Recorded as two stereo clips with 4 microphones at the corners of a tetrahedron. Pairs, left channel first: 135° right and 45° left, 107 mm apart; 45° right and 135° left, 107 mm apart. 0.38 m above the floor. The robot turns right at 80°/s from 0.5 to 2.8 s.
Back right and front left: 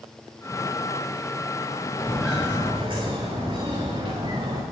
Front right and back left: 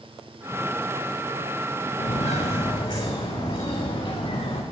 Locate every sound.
2.0 s footsteps: 60° right, 4.5 m; by 4.6 s 5° right, 3 m